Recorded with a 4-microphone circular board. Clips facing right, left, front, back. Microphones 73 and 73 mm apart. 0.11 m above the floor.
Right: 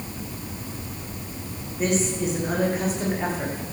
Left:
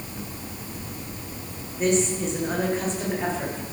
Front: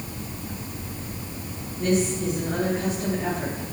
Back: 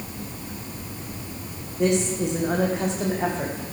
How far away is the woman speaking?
About 6 m.